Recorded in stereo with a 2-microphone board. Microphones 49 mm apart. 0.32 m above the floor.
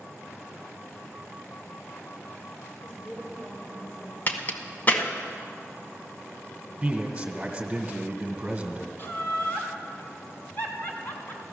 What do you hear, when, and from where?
2.8 s a woman speaking: 15° left (ahead or behind), 7 m
4.3 s a crack: 35° left (ahead or behind), 1.1 m
6.8 s a man speaking: 20° right (ahead or behind), 1.8 m
9.0 s laughter: 40° left (ahead or behind), 3 m